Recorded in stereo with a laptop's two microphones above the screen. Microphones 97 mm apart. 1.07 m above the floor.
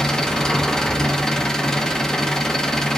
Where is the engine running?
5° left (ahead or behind), 1.0 m.